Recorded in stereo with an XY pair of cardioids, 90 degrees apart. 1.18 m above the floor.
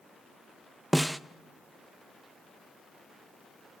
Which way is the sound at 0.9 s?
5° right.